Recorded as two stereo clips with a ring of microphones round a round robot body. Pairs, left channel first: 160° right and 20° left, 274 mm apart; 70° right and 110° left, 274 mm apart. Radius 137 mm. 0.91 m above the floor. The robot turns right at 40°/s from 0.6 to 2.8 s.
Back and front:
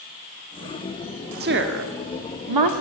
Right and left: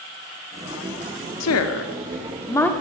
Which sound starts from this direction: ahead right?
A woman speaking, at 1.4 s.